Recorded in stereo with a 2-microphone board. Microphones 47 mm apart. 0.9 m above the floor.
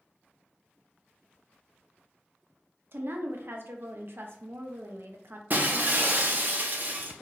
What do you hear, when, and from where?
2.9 s a woman speaking: 60° right (ahead or behind), 0.6 m
5.5 s breaking glass: 45° right (ahead or behind), 0.5 m